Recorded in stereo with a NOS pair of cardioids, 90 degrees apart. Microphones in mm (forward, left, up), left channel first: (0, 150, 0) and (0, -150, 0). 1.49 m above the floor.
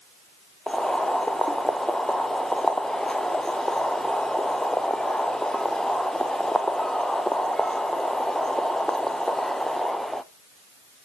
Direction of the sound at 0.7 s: Straight ahead.